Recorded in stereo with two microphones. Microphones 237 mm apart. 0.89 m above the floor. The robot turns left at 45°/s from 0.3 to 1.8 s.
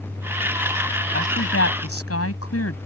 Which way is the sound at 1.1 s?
50° left (ahead or behind).